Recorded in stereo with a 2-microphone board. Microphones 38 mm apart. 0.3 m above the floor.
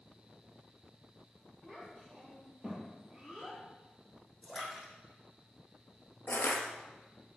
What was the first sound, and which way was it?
A child speaking, 15° right (ahead or behind).